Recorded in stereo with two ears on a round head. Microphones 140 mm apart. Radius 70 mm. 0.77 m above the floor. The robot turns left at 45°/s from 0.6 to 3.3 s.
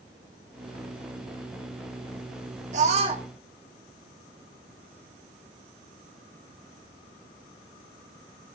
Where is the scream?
50° right (ahead or behind), 1.9 m; by 3.2 s 30° right (ahead or behind), 1.9 m.